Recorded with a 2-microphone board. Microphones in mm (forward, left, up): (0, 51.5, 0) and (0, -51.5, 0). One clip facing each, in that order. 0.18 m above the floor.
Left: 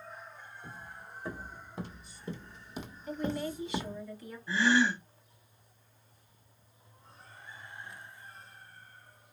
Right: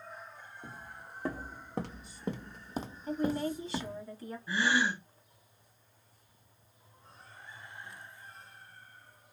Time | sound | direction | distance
0.6 | footsteps | 70° right (ahead or behind) | 1.3 m
3.1 | a woman speaking | 35° right (ahead or behind) | 1.3 m
4.5 | a gasp | 15° right (ahead or behind) | 1.1 m